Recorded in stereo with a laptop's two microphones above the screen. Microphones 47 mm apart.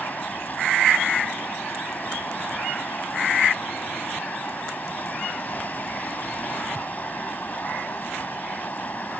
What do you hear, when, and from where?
0.0 s running water: 40° left (ahead or behind)